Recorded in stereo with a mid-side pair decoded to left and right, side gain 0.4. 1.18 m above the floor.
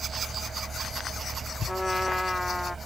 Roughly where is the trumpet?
Ahead.